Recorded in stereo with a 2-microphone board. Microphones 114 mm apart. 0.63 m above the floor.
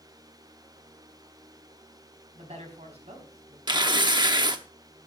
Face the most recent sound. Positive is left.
turn(degrees=-40)  # may be behind; listen again after turning